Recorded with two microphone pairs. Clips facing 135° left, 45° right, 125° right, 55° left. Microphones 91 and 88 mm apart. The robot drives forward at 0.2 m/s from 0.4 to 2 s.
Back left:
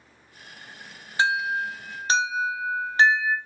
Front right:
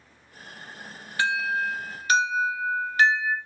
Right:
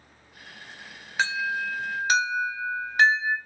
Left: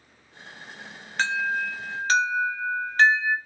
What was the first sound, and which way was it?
An alarm, 160° left.